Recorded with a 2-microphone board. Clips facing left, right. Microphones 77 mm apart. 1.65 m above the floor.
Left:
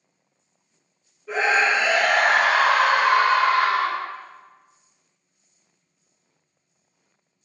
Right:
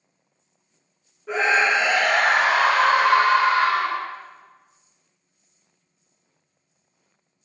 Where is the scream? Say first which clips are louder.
Even; 75° right (ahead or behind), 0.9 m.